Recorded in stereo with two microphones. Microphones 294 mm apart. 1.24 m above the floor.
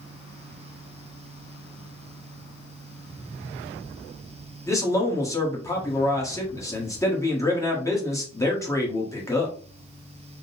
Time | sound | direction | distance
4.7 | a man speaking | 10° left (ahead or behind) | 1.3 m